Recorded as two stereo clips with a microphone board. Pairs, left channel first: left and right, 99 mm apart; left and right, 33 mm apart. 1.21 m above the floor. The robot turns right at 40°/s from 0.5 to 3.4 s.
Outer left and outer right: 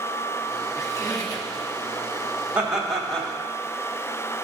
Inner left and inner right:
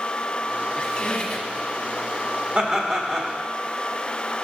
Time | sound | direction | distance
0.7 | a squeak | 40° left | 1.4 m
2.5 | laughter | 15° right | 1.7 m